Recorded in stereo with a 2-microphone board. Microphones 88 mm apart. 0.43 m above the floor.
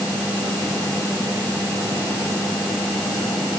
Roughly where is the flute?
No flute in this recording.